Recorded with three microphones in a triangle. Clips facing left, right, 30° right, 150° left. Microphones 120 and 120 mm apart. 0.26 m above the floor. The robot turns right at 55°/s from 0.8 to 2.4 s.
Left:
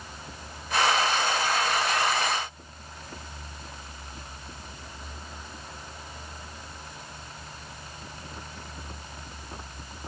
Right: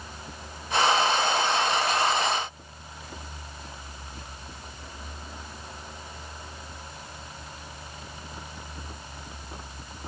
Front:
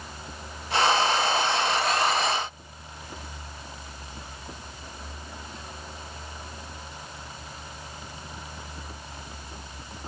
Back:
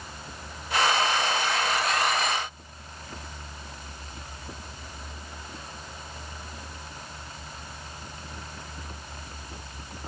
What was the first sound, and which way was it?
Only background noise.